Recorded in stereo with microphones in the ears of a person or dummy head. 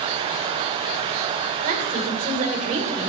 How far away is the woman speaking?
About 4 m.